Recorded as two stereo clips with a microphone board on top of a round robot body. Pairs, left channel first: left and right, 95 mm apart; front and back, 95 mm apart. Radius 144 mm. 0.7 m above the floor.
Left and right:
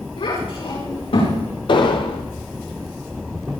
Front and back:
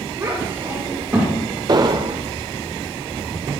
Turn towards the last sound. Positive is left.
turn(degrees=135)